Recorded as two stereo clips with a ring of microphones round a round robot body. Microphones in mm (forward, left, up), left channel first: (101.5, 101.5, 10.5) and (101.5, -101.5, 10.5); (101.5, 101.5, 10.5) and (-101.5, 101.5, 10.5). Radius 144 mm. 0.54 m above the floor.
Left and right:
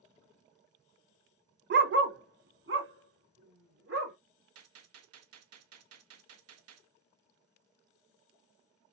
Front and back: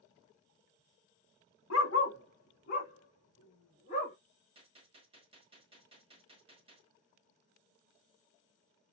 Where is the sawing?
No sawing in this recording.